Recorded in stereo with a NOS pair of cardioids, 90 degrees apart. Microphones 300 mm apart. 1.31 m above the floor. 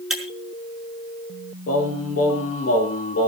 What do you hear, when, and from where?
0.1 s breaking glass: straight ahead, 4.5 m
1.7 s singing: 50° left, 6 m